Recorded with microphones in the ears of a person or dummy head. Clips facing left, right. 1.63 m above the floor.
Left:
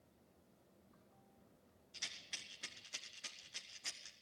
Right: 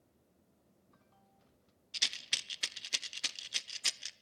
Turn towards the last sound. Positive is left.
turn(degrees=-85)